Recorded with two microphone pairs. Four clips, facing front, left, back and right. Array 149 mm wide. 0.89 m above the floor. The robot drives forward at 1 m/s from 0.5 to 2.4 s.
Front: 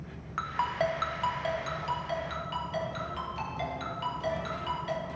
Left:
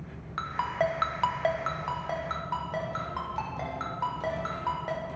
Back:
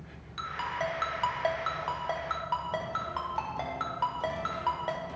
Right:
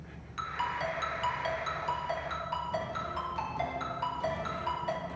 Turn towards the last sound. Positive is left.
turn(degrees=150)